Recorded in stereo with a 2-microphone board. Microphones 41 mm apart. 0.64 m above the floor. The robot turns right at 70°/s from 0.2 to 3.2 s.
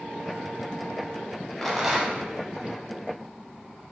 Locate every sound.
1.6 s a rattle: 170° left, 1.0 m; by 2.3 s 145° right, 1.0 m